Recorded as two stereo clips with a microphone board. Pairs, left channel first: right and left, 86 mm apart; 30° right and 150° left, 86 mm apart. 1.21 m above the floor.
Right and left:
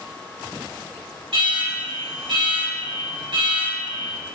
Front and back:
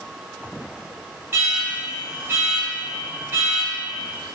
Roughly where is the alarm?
Left.